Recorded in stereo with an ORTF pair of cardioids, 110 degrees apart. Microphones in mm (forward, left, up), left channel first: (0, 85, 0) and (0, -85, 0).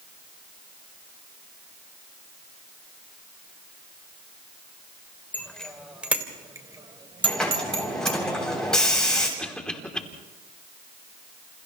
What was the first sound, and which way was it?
A bicycle bell, 10° left.